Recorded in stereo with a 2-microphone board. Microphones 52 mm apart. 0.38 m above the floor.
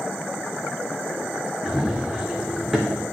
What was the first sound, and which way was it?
Running footsteps, 5° right (ahead or behind).